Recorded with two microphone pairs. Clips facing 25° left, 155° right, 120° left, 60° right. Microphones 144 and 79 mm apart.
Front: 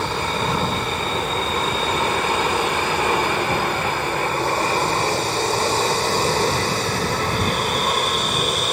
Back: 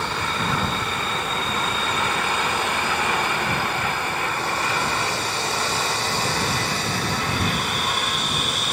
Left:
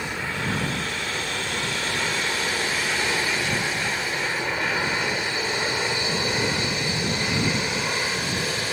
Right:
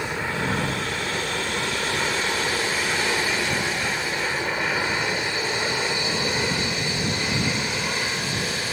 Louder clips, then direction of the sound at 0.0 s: Front 3 dB, right 2 dB; 5° right.